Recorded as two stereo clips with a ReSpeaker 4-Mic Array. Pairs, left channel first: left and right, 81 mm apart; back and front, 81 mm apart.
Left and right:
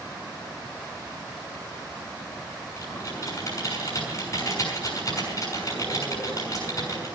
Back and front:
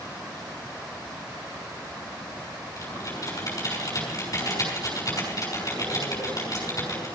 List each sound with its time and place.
2.8 s typing on a keyboard: 135° left, 6.5 m